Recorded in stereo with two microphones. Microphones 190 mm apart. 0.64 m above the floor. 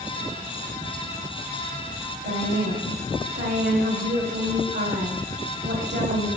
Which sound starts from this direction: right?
A woman speaking, at 2.2 s.